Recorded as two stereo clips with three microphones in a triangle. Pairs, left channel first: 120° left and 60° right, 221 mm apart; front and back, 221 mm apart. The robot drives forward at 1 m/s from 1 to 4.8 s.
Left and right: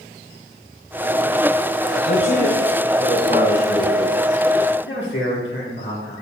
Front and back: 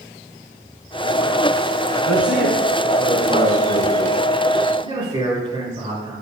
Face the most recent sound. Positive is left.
turn(degrees=120)